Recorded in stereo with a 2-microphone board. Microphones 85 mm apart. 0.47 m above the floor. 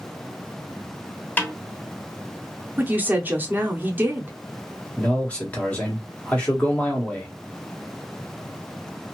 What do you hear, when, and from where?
1.4 s a snare drum: 20° left (ahead or behind), 0.9 m
2.8 s a woman speaking: 20° right (ahead or behind), 0.7 m
5.0 s a man speaking: 15° left (ahead or behind), 1.1 m